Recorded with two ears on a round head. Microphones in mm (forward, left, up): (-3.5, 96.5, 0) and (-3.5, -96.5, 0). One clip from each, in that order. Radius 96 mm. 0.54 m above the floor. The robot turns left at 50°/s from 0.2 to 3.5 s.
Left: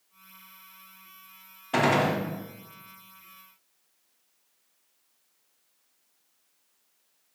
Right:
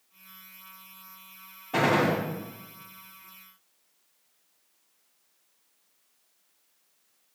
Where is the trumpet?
I don't hear a trumpet.